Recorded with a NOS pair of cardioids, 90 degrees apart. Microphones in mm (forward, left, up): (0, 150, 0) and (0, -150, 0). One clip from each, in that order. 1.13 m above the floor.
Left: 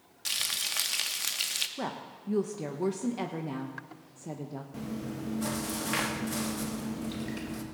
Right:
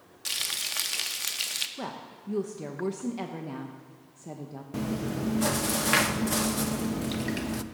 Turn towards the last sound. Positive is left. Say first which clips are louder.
# right 9 dB
turn(degrees=-45)